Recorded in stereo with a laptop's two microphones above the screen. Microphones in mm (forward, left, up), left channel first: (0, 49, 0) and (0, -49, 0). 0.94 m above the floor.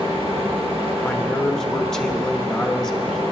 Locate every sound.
0.0 s a fan: 85° right, 2 m
1.0 s a man speaking: 5° left (ahead or behind), 1.2 m